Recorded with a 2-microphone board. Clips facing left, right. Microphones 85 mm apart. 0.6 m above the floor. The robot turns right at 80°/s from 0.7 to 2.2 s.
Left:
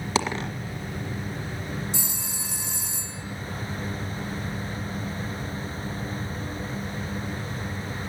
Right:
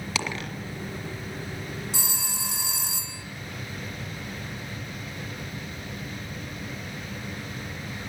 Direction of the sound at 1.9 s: 60° right (ahead or behind).